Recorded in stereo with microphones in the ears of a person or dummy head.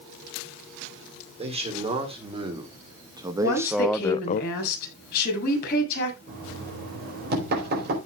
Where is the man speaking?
30° right (ahead or behind), 4 m; by 4.4 s 55° left (ahead or behind), 0.5 m.